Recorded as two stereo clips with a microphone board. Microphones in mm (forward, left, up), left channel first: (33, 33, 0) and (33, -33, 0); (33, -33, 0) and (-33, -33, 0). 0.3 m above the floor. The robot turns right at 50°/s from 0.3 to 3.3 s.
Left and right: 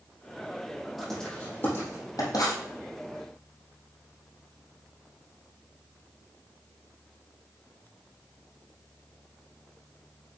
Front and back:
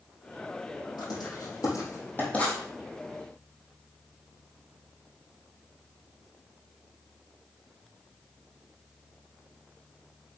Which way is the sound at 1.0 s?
Straight ahead.